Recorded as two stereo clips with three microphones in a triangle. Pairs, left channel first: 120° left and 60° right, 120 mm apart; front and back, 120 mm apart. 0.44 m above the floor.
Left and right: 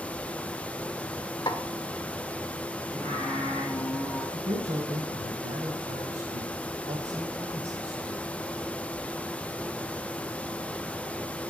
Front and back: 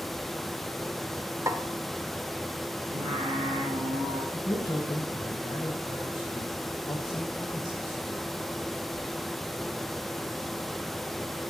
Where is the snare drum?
135° left, 1.2 m.